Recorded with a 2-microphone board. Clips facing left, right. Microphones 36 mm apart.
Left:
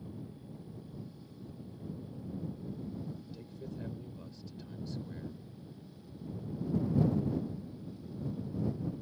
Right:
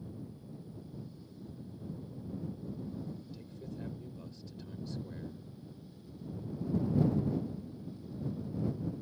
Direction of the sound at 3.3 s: Centre (ahead or behind).